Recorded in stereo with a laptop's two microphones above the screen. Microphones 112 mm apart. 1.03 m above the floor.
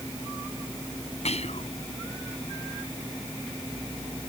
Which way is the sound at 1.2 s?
75° left (ahead or behind).